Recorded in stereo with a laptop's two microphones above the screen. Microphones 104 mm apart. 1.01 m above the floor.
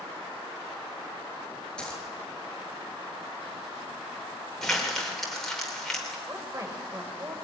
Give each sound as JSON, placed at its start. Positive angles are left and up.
{"t": 1.8, "sound": "a dropped coin", "side_deg": 10, "distance_m": 6.5}
{"t": 4.6, "sound": "crumpling", "side_deg": 5, "distance_m": 3.0}
{"t": 6.3, "sound": "a woman speaking", "side_deg": -30, "distance_m": 4.0}